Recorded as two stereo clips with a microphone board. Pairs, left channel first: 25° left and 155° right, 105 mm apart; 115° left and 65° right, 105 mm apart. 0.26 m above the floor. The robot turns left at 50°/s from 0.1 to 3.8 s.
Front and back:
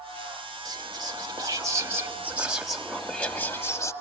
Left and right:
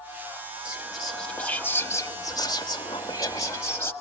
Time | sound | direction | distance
0.7 | whispering | 140° right | 1.8 m